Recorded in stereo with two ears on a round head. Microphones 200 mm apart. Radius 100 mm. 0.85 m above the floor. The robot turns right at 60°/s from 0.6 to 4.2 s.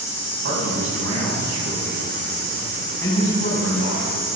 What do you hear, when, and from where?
0.4 s a man speaking: 130° right, 6 m; by 4.4 s 85° left, 6 m